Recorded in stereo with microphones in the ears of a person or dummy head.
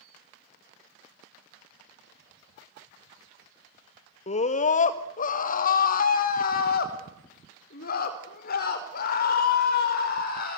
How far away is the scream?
About 1.6 m.